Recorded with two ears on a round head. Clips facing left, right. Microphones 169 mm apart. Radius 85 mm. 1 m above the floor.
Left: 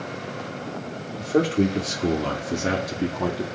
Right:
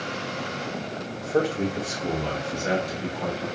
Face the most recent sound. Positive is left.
turn(degrees=75)  # may be behind; listen again after turning